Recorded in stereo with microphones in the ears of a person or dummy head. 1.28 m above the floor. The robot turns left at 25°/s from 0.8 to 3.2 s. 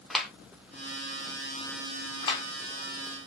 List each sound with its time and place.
0.1 s a clap: centre (ahead or behind), 1.1 m
2.2 s a clap: 25° left (ahead or behind), 1.6 m; by 2.4 s 30° left (ahead or behind), 1.6 m